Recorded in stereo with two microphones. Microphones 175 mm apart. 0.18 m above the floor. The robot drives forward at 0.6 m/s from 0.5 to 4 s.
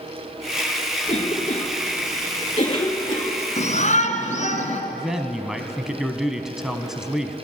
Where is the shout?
45° left (ahead or behind), 1.9 m.